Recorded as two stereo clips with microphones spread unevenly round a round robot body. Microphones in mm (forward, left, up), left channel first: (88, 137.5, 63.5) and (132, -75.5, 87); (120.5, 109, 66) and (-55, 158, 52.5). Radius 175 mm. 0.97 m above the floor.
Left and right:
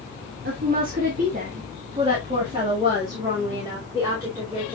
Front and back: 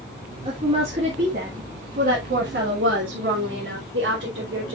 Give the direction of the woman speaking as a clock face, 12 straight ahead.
4 o'clock.